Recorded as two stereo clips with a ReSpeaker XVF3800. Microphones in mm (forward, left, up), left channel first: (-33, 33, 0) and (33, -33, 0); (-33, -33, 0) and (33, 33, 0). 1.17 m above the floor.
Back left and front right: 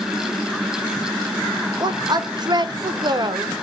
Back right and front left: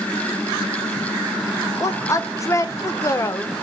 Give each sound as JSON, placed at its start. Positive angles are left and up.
{"t": 1.8, "sound": "a woman speaking", "azimuth_deg": -80, "distance_m": 0.6}